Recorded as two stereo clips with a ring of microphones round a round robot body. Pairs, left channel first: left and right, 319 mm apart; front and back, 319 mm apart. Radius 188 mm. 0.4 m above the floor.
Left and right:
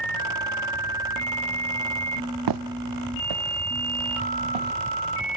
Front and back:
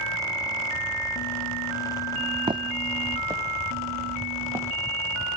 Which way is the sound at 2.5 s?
105° right.